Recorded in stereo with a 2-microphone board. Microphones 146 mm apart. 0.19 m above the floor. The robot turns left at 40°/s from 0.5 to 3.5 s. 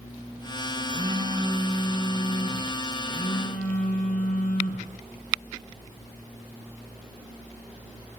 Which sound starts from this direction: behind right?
A phone buzzing, at 0.8 s.